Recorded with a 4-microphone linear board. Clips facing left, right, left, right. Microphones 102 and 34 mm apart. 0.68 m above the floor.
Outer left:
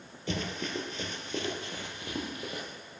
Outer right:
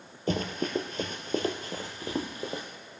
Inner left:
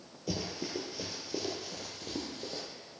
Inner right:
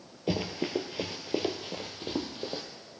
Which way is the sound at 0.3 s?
45° right (ahead or behind).